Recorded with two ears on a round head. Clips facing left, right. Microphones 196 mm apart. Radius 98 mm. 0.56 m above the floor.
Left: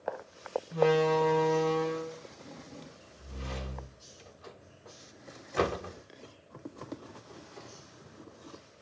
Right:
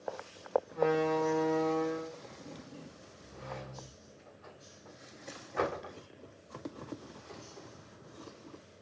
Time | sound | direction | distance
0.7 | a door slam | 40° left (ahead or behind) | 1.3 m